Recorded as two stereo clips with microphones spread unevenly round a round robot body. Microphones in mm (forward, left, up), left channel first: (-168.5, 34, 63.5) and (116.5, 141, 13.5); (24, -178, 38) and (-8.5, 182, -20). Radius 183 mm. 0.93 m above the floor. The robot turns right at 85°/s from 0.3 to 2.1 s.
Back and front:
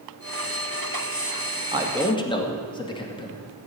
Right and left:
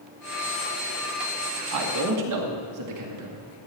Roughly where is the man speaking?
Left.